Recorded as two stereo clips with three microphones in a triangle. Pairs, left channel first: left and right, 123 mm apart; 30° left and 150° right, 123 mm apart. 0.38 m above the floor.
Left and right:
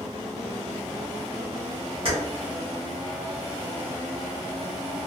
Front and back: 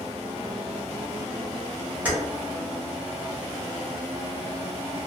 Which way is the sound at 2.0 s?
75° right.